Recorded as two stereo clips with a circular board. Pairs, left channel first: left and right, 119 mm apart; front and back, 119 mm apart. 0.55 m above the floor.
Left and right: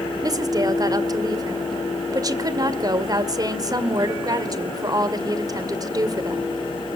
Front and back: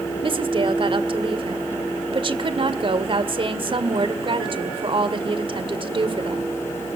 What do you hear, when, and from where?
0.2 s a woman speaking: 145° right, 1.9 m